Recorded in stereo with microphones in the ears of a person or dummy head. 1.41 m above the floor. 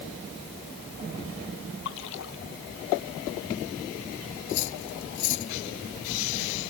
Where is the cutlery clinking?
65° left (ahead or behind).